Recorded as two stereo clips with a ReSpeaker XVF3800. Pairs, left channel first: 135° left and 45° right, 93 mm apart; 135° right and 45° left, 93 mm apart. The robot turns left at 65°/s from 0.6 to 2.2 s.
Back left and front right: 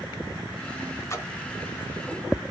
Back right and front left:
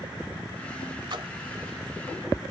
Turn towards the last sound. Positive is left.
turn(degrees=10)